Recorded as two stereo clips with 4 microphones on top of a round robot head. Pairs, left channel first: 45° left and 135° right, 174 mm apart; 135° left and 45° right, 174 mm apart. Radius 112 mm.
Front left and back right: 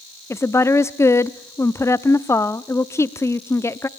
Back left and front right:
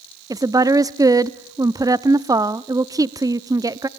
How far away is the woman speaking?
About 0.7 m.